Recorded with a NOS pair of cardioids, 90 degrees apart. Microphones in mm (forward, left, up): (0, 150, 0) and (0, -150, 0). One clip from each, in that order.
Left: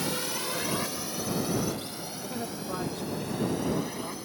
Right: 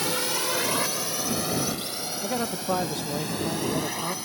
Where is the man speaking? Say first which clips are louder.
Right 9 dB; 65° right.